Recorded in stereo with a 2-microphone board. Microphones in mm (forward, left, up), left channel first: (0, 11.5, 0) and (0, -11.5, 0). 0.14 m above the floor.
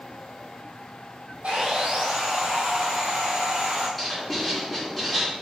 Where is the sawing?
75° right (ahead or behind), 1.3 m.